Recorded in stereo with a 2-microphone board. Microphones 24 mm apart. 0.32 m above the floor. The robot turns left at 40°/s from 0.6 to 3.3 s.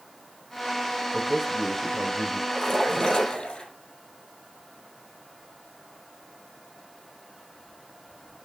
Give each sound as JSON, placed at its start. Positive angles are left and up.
{"t": 1.1, "sound": "a man speaking", "azimuth_deg": -165, "distance_m": 1.0}
{"t": 2.5, "sound": "a splash", "azimuth_deg": 165, "distance_m": 5.0}